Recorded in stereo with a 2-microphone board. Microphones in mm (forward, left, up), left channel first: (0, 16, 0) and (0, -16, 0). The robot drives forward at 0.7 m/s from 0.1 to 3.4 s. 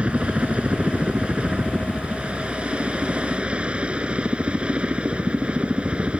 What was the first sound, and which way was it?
A helicopter, 40° right (ahead or behind).